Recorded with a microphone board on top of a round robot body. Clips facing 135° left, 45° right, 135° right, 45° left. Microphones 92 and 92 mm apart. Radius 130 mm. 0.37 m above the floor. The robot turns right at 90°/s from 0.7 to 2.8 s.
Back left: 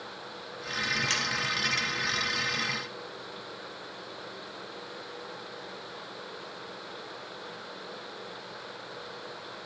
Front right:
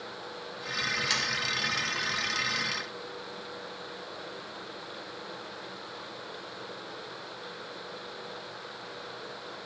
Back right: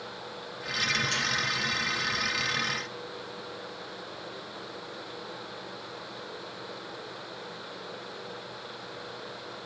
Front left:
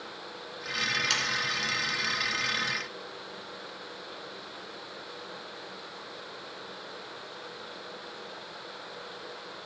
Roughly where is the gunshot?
No gunshot in this recording.